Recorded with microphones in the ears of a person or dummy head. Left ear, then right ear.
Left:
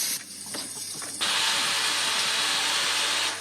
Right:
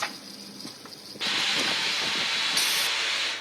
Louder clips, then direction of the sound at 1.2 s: Left 1 dB; 25° left (ahead or behind).